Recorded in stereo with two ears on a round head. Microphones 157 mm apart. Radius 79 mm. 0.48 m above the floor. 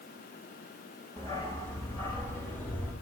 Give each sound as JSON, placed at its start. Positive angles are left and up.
{"t": 1.2, "sound": "a dog barking", "side_deg": 15, "distance_m": 5.5}